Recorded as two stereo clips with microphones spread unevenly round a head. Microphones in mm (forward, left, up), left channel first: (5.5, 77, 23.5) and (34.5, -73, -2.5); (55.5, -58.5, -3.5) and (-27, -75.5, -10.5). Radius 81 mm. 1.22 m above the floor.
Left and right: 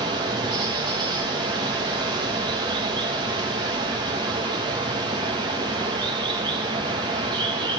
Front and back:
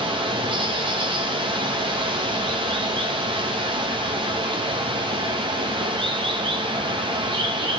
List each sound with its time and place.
0.0 s running water: 145° right, 0.8 m